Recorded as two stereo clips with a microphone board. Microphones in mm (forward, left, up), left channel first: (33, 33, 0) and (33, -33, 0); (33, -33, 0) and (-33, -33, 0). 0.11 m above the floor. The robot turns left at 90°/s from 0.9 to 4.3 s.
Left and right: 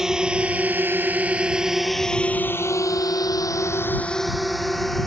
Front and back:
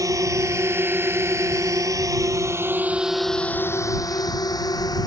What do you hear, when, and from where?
0.0 s a drone: 170° right; by 5.1 s 5° left